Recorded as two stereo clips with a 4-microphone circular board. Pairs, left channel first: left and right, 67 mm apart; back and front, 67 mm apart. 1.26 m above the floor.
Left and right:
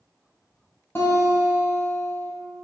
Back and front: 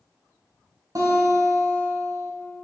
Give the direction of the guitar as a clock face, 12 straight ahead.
11 o'clock.